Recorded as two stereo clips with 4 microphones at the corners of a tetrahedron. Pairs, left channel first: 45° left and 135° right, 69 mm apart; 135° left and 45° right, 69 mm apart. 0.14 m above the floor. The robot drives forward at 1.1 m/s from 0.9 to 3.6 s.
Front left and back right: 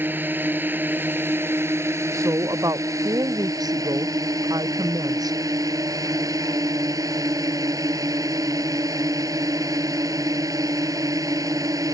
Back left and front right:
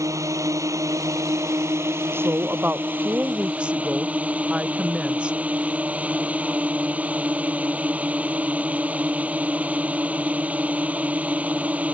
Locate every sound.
0.0 s a drone: 80° right; by 11.9 s 115° right
2.1 s a woman speaking: 100° right; by 5.4 s 120° right